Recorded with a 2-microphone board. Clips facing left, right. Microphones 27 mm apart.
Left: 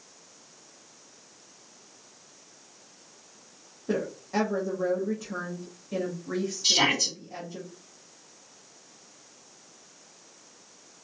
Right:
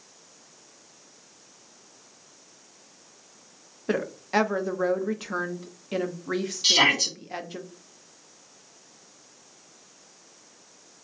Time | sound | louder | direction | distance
3.9 | a woman speaking | right 3 dB | 80° right | 0.5 m
6.6 | a shout | right 4 dB | 75° right (ahead or behind) | 1.3 m